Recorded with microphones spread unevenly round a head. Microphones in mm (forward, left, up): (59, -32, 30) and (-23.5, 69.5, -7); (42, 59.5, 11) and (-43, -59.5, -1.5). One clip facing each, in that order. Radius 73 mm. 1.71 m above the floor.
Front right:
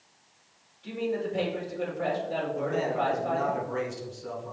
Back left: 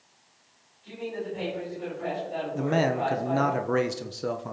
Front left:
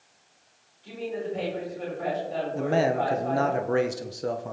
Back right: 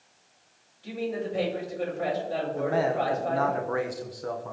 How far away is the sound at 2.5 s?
About 1.2 m.